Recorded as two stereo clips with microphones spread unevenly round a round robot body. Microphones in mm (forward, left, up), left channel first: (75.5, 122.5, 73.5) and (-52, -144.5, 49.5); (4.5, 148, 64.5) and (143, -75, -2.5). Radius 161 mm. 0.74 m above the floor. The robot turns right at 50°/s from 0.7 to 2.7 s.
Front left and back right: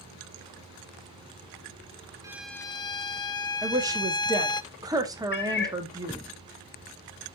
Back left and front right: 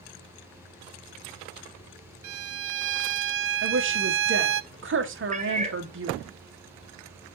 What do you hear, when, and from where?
2.2 s a violin: 35° right, 0.5 m; by 4.6 s 15° right, 0.5 m
3.6 s a woman speaking: 40° right, 1.7 m
5.3 s a cat meowing: 5° left, 1.1 m